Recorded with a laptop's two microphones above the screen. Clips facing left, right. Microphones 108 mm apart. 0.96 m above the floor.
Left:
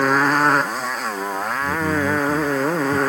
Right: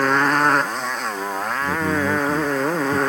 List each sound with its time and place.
0.0 s a motorcycle: 5° left (ahead or behind); by 3.1 s centre (ahead or behind)
1.6 s a man speaking: 15° right (ahead or behind)